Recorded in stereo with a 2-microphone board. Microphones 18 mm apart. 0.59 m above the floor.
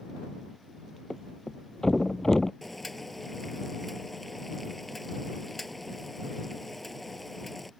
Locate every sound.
1.1 s a thud: 25° left (ahead or behind)
2.6 s boiling: 10° left (ahead or behind)